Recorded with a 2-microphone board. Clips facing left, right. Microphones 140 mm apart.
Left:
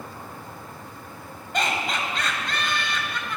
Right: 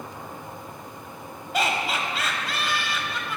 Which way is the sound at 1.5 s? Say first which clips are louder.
Right 1 dB; 5° right (ahead or behind).